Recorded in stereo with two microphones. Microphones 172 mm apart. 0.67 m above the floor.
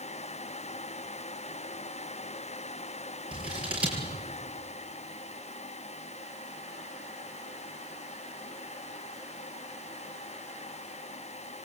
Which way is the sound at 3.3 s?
5° right (ahead or behind).